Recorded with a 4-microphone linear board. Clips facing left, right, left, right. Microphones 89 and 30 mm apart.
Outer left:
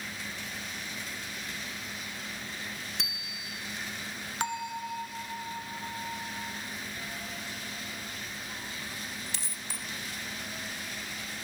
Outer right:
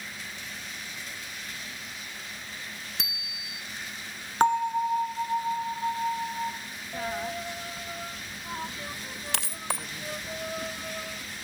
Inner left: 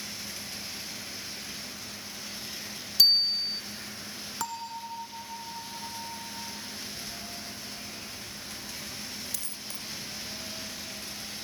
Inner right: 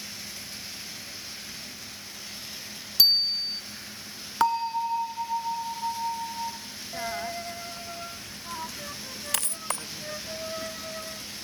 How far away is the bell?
About 0.8 m.